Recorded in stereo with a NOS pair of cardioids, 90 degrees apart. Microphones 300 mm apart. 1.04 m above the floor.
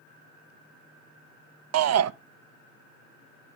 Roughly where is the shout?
Ahead right.